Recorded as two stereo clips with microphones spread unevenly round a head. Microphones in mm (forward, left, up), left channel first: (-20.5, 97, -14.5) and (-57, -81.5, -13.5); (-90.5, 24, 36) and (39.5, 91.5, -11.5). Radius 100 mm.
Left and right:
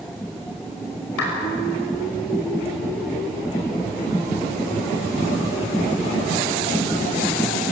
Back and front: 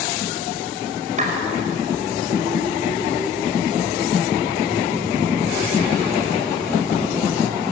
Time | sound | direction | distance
1.2 | a clap | 65° left | 6 m